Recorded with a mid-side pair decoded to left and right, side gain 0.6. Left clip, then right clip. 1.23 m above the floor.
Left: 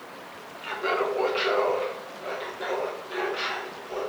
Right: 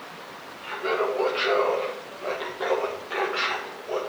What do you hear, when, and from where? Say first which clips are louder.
0.6 s laughter: right 1 dB; 30° left, 1.2 m; by 4.0 s 55° right, 1.7 m